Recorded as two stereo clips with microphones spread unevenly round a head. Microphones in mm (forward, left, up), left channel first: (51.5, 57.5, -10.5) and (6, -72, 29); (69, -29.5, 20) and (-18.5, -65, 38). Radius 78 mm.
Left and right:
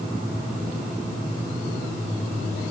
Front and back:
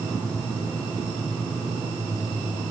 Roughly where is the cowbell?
No cowbell in this recording.